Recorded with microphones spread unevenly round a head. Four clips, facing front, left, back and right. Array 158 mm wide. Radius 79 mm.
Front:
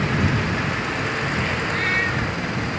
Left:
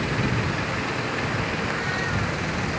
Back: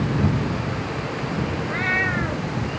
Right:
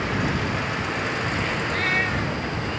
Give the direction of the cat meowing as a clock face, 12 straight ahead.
5 o'clock.